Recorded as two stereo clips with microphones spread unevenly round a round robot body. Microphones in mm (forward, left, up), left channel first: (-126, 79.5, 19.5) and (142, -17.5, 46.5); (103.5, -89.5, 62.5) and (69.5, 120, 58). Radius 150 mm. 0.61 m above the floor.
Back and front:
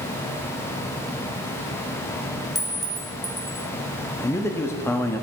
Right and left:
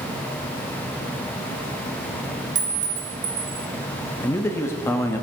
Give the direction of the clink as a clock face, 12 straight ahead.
10 o'clock.